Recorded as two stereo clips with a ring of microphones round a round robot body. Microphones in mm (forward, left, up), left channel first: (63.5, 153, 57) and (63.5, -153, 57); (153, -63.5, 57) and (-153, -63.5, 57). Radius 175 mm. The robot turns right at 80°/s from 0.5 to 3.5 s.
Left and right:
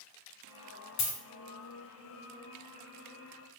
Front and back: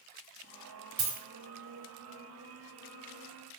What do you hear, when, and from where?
1.0 s a dropped coin: 135° left, 1.6 m; by 1.2 s 150° left, 1.6 m